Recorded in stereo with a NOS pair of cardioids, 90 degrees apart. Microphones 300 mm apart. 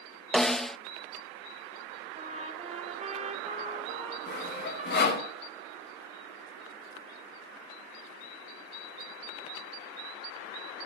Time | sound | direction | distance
0.3 | a snare drum | straight ahead | 0.6 m
2.1 | a trumpet | 25° right | 3 m
4.3 | sawing | 35° left | 5 m